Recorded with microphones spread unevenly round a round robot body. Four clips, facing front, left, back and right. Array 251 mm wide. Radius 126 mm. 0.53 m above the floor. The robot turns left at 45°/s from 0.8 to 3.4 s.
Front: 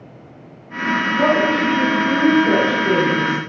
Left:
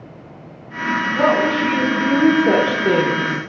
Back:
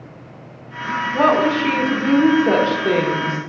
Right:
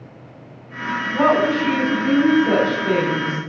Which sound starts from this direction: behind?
A woman speaking, at 1.1 s.